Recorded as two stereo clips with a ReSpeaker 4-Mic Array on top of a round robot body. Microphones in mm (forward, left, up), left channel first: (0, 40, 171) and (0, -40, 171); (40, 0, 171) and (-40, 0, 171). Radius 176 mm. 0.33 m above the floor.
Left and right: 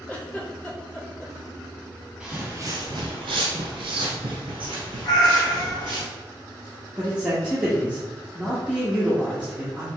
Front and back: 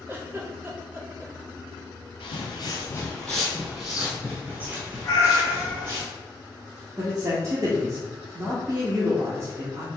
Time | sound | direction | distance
0.1 | a giggle | 155° left | 1.5 m
2.2 | footsteps | 5° right | 0.7 m
5.0 | a cat meowing | 50° left | 1.3 m
7.0 | a man speaking | 160° right | 1.5 m